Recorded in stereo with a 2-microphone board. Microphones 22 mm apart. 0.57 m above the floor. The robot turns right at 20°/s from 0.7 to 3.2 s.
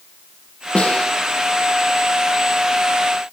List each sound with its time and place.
0.8 s a snare drum: 75° left (ahead or behind), 8.5 m; by 1.1 s 70° left (ahead or behind), 8.5 m